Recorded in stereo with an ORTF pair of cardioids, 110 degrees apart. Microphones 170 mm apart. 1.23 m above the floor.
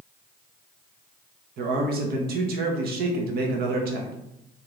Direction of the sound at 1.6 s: 65° right.